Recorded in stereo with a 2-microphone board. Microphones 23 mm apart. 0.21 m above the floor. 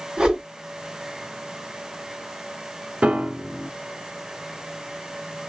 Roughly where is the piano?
Right.